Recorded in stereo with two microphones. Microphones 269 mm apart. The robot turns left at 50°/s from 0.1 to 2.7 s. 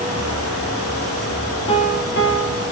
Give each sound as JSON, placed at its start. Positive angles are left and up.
{"t": 1.7, "sound": "a piano", "azimuth_deg": 160, "distance_m": 0.5}